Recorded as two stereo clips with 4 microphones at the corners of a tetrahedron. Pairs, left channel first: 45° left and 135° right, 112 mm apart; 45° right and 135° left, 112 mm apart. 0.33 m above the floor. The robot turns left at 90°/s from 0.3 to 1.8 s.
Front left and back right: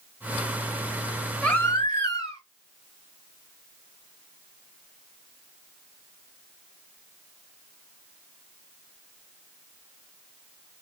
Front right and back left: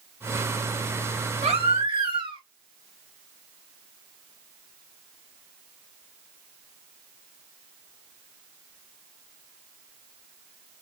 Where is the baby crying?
130° left, 1.7 m; by 2.4 s 95° left, 1.7 m.